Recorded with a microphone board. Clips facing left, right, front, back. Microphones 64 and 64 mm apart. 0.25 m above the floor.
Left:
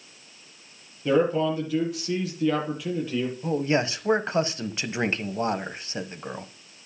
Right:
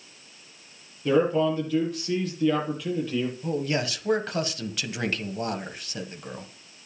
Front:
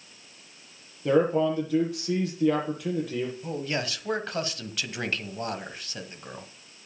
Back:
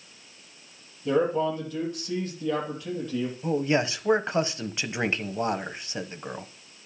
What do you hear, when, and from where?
1.1 s a man speaking: 10° left, 6.5 m
3.4 s a man speaking: 130° left, 1.1 m